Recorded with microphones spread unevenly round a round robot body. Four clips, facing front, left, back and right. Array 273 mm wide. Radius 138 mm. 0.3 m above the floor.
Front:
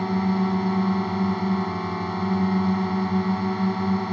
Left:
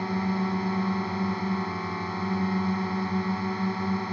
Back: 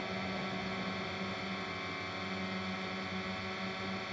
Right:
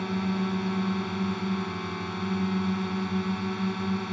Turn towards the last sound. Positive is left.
turn(degrees=5)